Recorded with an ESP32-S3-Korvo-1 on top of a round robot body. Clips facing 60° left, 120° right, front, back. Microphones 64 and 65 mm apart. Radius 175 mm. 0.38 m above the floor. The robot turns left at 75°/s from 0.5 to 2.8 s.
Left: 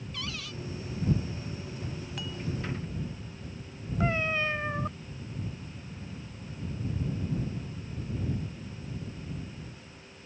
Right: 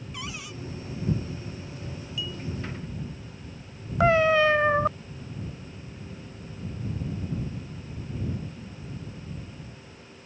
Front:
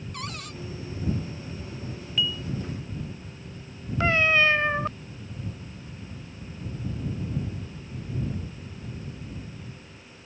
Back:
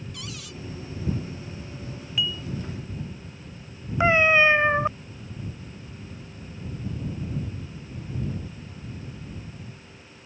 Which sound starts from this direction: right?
A cat meowing, at 4.0 s.